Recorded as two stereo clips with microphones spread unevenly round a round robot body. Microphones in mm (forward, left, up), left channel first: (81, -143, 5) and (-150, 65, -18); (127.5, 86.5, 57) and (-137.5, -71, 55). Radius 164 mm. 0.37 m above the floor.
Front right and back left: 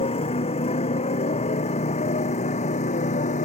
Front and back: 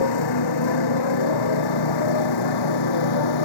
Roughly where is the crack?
I don't hear a crack.